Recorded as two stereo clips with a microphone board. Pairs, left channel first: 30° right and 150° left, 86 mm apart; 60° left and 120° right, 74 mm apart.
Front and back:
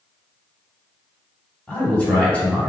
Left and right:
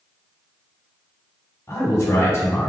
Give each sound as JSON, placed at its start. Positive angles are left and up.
{"t": 1.7, "sound": "a man speaking", "azimuth_deg": 35, "distance_m": 1.3}